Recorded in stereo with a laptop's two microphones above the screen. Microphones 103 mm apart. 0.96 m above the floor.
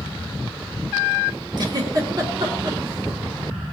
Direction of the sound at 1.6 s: 45° right (ahead or behind).